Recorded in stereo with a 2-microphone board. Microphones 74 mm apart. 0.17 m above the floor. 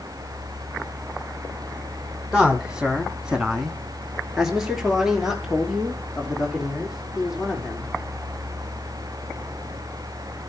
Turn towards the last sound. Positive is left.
turn(degrees=-5)  # may be behind; listen again after turning